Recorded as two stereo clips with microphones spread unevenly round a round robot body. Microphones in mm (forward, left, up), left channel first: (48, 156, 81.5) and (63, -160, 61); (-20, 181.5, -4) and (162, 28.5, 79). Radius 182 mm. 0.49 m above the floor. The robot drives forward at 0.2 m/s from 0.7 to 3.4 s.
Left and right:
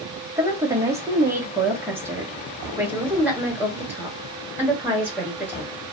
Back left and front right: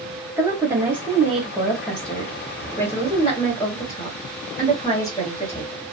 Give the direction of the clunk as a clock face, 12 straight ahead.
I don't hear a clunk.